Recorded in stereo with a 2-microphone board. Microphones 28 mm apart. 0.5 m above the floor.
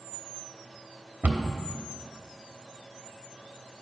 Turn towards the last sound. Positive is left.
turn(degrees=-75)  # may be behind; listen again after turning